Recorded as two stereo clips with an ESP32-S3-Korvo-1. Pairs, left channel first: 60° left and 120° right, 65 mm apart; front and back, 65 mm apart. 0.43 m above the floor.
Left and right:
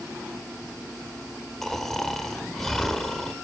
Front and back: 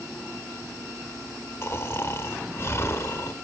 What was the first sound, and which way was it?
Snoring, 25° right.